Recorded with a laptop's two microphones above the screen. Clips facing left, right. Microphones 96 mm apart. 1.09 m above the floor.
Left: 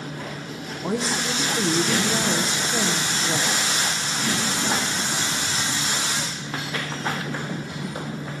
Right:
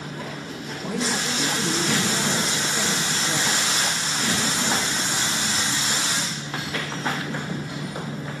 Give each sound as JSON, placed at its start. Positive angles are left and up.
{"t": 0.8, "sound": "a woman speaking", "side_deg": 30, "distance_m": 0.7}